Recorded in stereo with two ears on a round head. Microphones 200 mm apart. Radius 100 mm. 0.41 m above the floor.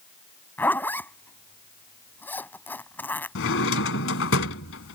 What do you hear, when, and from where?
0.6 s a zipper: 10° left (ahead or behind)
3.4 s a drawer: 65° left (ahead or behind)